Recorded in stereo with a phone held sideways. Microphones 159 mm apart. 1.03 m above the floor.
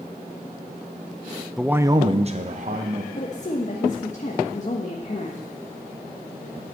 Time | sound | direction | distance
1.6 | a man speaking | centre (ahead or behind) | 0.6 m
3.1 | a woman speaking | 50° left (ahead or behind) | 1.3 m